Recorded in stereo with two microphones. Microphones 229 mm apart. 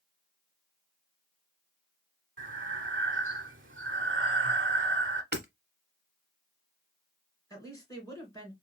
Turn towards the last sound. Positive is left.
turn(degrees=15)  # may be behind; listen again after turning